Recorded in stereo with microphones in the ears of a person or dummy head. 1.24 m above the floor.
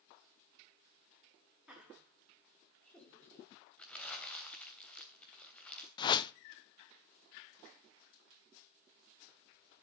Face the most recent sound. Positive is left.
turn(degrees=25)  # may be behind; listen again after turning